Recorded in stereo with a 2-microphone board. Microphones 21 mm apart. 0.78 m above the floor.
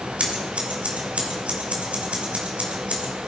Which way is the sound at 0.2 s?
70° right (ahead or behind).